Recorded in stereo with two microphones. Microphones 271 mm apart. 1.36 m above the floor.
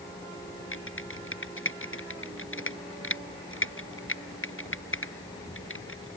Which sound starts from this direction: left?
Typing on a keyboard, at 0.7 s.